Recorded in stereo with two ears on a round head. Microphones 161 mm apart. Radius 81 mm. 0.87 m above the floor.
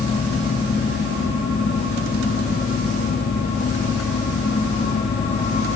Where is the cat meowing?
No cat meowing in this recording.